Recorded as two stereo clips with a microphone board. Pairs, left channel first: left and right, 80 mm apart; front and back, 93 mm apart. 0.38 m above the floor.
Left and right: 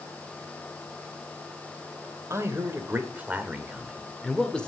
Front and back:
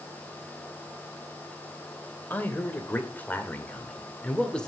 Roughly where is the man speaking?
Ahead right.